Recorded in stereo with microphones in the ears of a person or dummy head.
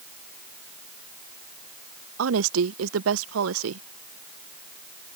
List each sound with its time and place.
2.2 s a woman speaking: 65° right (ahead or behind)